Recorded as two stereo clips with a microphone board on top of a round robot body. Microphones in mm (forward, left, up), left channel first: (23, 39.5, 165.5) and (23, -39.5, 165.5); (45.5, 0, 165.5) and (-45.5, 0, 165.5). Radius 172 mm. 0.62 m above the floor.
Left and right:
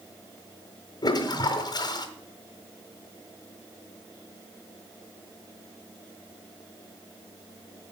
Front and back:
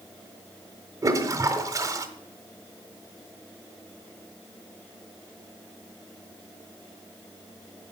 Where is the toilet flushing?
125° left, 1.2 m.